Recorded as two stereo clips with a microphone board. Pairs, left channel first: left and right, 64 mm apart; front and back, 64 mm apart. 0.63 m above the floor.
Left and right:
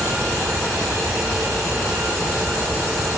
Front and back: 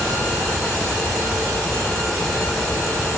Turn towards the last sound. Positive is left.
No sound to turn to.